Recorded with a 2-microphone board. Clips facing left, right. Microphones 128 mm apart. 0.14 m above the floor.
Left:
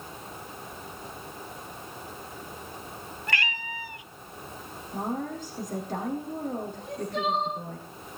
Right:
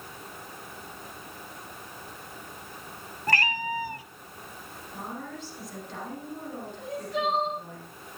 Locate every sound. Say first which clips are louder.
3.3 s a cat meowing: right 6 dB; 40° right (ahead or behind), 0.8 m
4.9 s a woman speaking: left 7 dB; 45° left (ahead or behind), 6.5 m
6.8 s crying: right 4 dB; 5° right (ahead or behind), 8 m